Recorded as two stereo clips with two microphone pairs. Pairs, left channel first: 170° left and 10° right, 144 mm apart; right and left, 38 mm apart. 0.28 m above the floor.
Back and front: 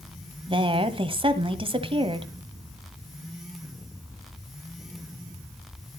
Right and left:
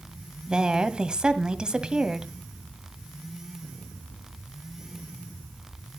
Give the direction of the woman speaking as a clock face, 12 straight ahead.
11 o'clock.